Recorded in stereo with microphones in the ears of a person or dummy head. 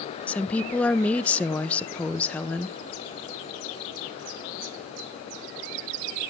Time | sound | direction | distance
0.3 | a woman speaking | 5° left (ahead or behind) | 0.5 m